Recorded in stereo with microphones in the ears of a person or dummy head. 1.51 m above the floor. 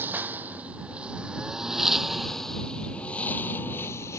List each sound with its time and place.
0.0 s a lawn mower: 10° right (ahead or behind); by 4.2 s 15° left (ahead or behind)